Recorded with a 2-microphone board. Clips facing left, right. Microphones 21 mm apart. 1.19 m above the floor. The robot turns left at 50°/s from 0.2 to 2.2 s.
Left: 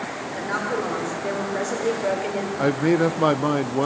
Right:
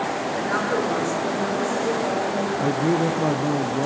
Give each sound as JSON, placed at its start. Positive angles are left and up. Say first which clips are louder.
{"t": 0.3, "sound": "a woman speaking", "louder": "right 1 dB", "azimuth_deg": -175, "distance_m": 5.0}
{"t": 2.6, "sound": "a man speaking", "louder": "left 4 dB", "side_deg": 70, "distance_m": 0.5}